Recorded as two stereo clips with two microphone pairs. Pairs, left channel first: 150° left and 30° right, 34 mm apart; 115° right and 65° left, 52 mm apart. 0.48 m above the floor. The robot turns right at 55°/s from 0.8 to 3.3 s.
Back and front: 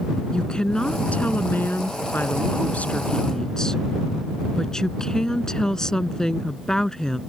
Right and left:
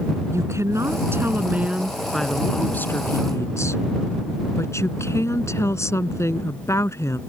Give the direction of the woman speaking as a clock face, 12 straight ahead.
9 o'clock.